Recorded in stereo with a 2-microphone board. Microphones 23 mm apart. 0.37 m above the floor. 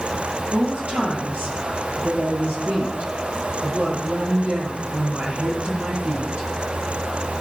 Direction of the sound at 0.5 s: 60° right (ahead or behind).